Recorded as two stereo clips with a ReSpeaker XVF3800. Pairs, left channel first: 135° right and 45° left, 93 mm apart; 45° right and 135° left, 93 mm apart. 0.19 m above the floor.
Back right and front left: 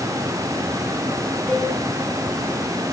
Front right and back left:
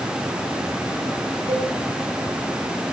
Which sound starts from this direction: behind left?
A cowbell, at 1.5 s.